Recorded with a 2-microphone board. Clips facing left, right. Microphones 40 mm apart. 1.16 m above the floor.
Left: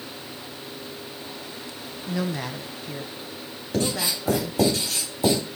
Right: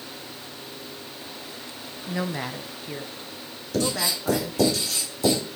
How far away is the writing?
About 4.5 m.